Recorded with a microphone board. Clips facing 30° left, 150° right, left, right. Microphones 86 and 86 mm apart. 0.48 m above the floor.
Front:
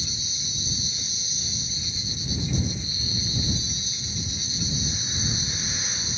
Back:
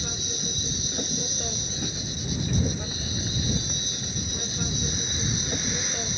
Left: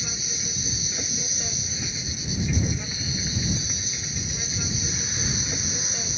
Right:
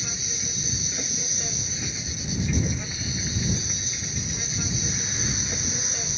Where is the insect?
Straight behind.